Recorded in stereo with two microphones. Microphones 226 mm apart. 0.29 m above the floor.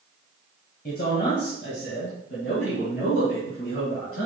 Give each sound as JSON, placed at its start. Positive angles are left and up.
{"t": 0.8, "sound": "a man speaking", "side_deg": 45, "distance_m": 1.8}